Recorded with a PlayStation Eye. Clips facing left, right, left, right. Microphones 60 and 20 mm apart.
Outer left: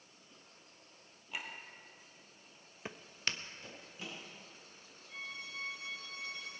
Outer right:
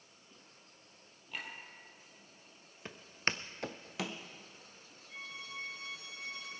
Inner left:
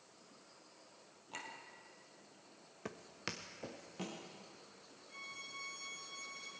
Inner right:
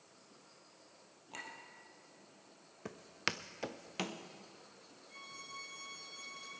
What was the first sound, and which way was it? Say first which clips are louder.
A clink: even, inner right 1 dB; 10° left (ahead or behind).